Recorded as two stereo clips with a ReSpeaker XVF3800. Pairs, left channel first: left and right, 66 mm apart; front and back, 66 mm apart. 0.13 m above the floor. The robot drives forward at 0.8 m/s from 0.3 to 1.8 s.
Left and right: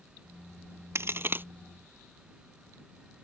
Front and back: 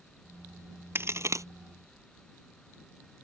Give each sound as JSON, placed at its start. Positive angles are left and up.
{"t": 0.9, "sound": "a crack", "azimuth_deg": -130}